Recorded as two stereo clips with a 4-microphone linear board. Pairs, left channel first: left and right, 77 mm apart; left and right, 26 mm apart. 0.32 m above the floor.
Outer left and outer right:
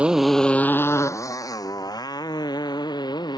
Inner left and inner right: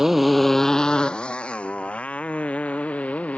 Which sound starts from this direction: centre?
A motorcycle, at 0.0 s.